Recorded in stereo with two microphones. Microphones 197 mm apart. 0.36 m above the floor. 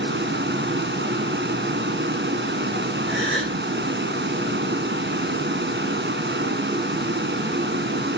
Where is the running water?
70° right (ahead or behind), 2 m.